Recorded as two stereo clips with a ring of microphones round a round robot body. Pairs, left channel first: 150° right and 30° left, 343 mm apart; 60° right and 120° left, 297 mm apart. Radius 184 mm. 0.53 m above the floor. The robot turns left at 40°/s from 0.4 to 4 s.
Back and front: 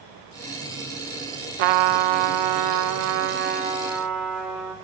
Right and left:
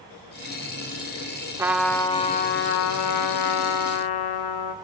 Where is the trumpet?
40° left, 0.5 m; by 4.8 s 60° right, 0.5 m.